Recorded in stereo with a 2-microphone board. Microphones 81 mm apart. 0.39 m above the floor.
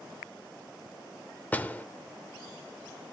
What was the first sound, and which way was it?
A door slam, 20° left (ahead or behind).